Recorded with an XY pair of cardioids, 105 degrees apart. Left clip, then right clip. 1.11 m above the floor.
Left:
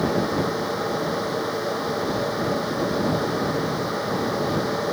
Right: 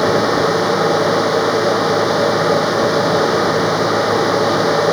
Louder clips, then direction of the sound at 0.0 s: Right 9 dB; 65° right.